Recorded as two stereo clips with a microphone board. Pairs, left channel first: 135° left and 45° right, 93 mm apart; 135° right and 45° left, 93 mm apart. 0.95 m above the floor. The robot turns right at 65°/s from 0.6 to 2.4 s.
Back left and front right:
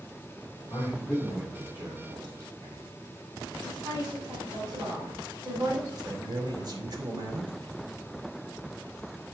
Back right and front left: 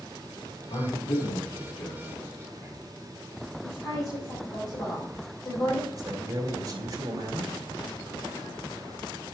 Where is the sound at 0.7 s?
175° right, 3 m; by 2.8 s 65° right, 3 m.